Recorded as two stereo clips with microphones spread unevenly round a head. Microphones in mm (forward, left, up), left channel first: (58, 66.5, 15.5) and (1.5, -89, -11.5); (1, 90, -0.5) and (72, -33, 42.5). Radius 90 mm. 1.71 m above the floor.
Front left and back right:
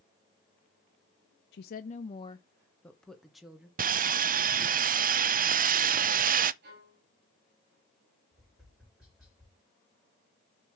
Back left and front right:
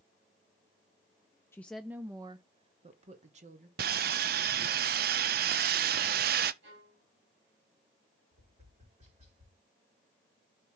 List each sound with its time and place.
1.5 s a woman speaking: 45° left, 0.6 m; by 3.7 s 25° right, 1.6 m
3.8 s sawing: 70° right, 0.6 m
6.6 s a violin: 85° right, 3.5 m
8.3 s tapping: 25° right, 5 m